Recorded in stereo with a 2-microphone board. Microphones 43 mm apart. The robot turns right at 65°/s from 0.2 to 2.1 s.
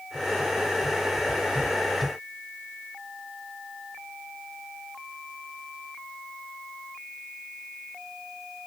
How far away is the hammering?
I don't hear hammering.